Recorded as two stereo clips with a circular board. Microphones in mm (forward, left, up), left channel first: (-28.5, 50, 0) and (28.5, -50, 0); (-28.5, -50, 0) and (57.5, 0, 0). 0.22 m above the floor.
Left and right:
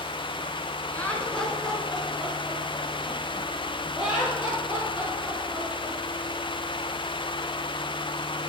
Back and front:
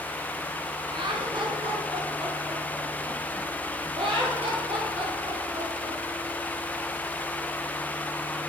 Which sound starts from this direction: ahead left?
Laughter, at 0.9 s.